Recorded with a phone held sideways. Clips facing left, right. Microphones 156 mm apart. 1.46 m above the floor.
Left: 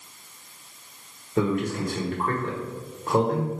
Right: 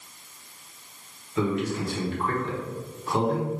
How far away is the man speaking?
About 1.4 m.